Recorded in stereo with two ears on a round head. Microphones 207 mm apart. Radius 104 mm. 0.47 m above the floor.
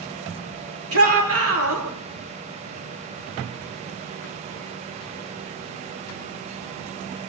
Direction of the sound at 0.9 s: 70° right (ahead or behind).